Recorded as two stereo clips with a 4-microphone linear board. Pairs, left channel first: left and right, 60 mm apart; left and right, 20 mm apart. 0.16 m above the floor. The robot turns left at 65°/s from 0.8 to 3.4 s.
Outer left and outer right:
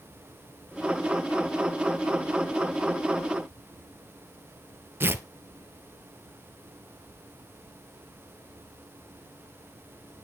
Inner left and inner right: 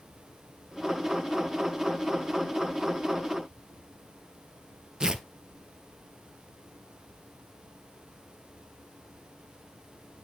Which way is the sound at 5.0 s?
40° right (ahead or behind).